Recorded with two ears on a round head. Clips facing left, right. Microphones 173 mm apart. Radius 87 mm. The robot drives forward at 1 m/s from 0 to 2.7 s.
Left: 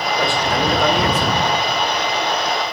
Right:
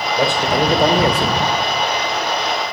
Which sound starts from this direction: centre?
A man speaking, at 0.1 s.